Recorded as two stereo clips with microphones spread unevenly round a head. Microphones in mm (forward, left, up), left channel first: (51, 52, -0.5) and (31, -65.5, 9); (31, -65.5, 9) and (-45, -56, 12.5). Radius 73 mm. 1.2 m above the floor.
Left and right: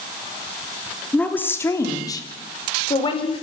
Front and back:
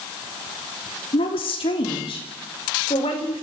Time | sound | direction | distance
1.1 | a woman speaking | straight ahead | 3 m